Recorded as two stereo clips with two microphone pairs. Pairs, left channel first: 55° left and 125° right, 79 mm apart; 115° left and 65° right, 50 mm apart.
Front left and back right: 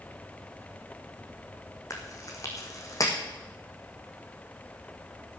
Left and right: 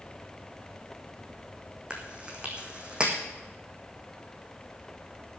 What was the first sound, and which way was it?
Chewing, 5° left.